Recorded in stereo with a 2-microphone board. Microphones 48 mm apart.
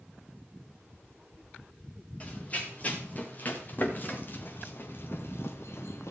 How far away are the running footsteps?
About 3.5 m.